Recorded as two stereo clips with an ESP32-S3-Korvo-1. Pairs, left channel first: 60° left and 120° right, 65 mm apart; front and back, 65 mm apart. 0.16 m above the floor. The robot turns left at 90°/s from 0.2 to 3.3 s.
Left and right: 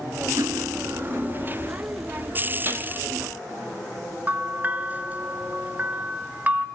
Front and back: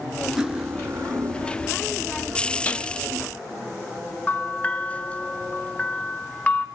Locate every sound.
0.4 s cutlery clinking: 100° right, 1.5 m; by 1.6 s 150° left, 1.5 m
2.6 s a gunshot: 65° right, 1.2 m; by 2.9 s 85° right, 1.2 m
4.3 s a bell: 65° right, 1.0 m